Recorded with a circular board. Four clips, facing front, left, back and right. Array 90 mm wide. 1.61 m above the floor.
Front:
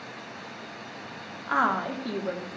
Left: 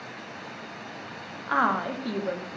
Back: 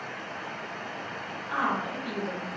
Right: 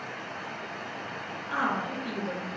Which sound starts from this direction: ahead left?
A woman speaking, at 1.5 s.